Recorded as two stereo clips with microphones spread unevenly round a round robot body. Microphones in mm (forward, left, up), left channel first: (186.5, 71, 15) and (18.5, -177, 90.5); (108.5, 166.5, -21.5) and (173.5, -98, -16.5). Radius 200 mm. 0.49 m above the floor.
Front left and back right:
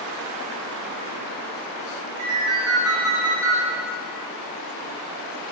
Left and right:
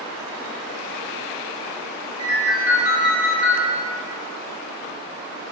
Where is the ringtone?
150° left, 2 m.